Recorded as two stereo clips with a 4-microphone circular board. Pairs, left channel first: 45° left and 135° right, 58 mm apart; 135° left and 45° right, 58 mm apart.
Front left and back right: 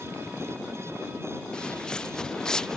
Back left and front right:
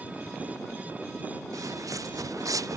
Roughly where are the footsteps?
Ahead right.